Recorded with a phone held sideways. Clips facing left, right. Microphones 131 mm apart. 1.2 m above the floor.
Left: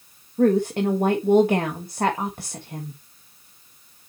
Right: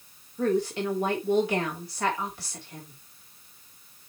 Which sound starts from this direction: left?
A woman speaking, at 0.4 s.